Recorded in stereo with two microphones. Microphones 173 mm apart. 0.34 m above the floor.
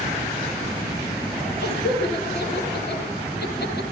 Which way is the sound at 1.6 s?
70° left (ahead or behind).